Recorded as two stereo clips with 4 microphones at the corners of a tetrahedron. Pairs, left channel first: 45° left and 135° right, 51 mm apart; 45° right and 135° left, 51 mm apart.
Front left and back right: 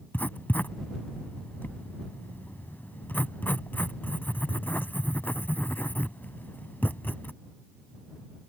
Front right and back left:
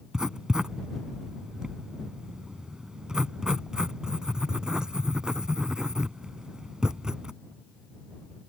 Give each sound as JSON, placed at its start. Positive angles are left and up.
{"t": 0.1, "sound": "writing", "azimuth_deg": 65}